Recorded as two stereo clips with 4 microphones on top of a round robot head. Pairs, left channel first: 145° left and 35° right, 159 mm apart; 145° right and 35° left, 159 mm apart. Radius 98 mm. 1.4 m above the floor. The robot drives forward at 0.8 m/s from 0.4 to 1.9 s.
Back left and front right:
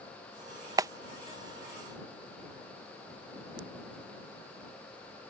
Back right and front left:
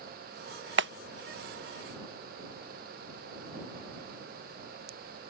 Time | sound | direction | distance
0.8 | a clap | 30° left | ?